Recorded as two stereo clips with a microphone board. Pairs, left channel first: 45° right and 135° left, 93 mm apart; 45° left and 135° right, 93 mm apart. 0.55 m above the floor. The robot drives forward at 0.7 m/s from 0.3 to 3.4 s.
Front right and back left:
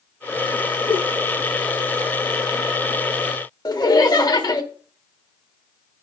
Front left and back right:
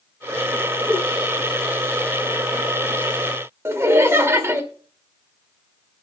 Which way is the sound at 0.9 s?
50° right.